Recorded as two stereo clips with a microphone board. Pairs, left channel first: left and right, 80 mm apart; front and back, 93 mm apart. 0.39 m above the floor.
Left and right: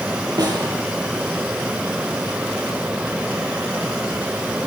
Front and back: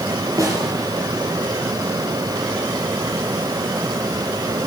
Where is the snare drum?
125° right, 6.5 m.